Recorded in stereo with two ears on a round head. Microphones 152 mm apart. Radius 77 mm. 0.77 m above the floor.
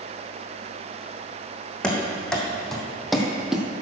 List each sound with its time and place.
1.8 s running footsteps: 5° left (ahead or behind), 1.9 m; by 3.7 s 5° right (ahead or behind), 1.1 m